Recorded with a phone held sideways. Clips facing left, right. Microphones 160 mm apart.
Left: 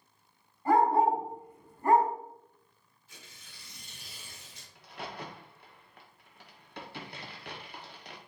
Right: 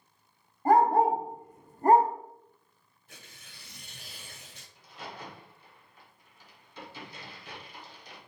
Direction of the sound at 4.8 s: 65° left (ahead or behind).